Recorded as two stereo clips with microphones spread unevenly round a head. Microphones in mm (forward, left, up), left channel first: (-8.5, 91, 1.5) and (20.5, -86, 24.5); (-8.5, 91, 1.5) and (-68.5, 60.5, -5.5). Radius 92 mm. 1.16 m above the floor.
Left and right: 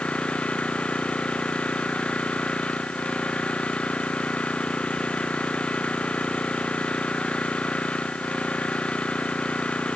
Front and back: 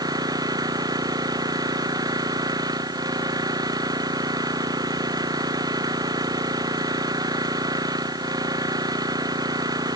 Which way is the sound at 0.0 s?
175° right.